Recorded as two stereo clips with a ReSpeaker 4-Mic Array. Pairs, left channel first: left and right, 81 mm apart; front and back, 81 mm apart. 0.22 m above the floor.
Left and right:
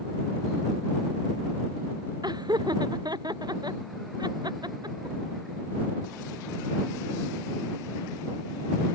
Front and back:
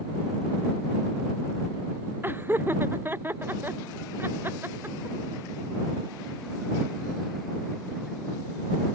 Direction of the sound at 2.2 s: 115° right.